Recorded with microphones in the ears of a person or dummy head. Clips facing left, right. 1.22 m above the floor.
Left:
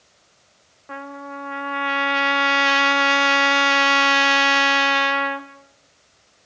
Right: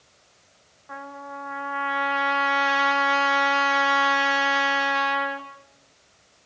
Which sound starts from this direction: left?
A trumpet, at 0.9 s.